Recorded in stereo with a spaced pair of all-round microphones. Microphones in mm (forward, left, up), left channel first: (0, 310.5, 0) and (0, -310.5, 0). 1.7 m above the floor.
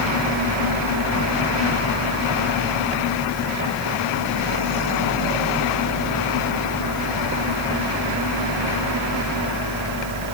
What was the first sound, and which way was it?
A fan, 40° left (ahead or behind).